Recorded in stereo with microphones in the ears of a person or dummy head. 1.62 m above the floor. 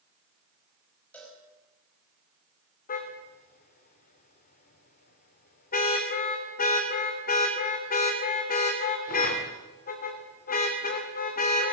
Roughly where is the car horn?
Left.